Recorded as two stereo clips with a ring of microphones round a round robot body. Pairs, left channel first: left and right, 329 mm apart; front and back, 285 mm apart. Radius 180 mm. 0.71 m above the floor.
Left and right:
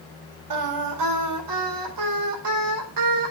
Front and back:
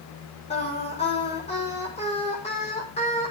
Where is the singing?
70° right, 4 m.